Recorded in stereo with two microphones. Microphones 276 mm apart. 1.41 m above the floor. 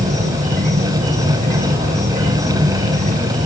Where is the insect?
25° right (ahead or behind), 1.7 m.